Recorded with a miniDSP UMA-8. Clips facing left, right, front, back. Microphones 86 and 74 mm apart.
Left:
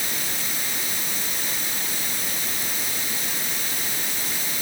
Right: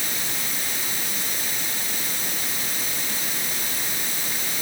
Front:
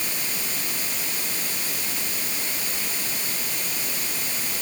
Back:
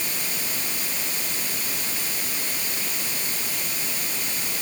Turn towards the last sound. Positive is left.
No sound to turn to.